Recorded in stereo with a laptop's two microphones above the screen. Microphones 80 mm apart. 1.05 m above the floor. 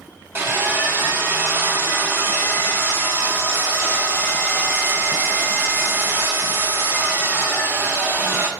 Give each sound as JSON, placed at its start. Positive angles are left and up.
{"t": 0.3, "sound": "sawing", "side_deg": -30, "distance_m": 1.8}